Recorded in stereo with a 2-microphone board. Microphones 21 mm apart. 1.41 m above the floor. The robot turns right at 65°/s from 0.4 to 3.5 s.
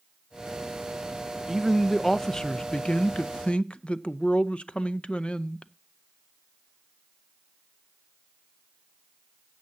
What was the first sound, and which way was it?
A man speaking, 20° right.